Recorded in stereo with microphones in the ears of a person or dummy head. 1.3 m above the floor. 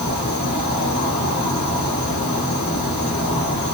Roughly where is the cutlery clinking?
No cutlery clinking in this recording.